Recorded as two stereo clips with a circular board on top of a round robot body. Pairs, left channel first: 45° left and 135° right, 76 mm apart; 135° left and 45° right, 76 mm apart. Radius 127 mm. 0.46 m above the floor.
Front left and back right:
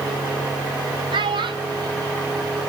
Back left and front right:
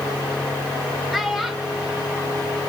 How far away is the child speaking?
About 2 m.